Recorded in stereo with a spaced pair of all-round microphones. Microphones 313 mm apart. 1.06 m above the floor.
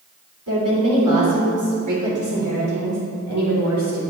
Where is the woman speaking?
80° right, 2.5 m; by 4.0 s 55° right (ahead or behind), 4 m.